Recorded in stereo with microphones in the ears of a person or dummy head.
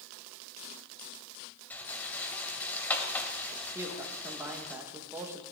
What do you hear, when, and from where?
1.7 s a rattle: 10° left (ahead or behind), 1.7 m
3.8 s a woman speaking: 10° right (ahead or behind), 1.5 m